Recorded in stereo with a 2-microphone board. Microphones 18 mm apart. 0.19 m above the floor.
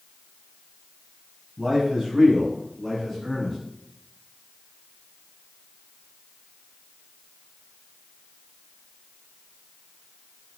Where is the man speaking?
40° right (ahead or behind), 1.5 m; by 3.6 s 20° left (ahead or behind), 3 m.